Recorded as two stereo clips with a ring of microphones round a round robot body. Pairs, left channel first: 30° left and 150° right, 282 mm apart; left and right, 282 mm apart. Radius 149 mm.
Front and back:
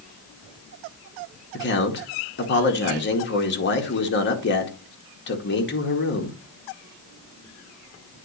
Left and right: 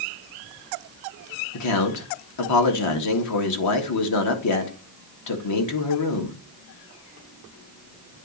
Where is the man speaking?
80° left, 1.8 m.